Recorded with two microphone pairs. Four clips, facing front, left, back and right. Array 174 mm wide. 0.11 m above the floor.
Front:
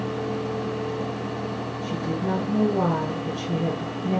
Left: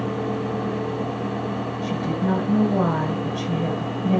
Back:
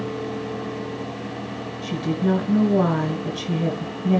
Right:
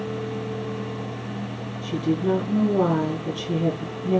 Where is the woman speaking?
145° left, 1.4 m.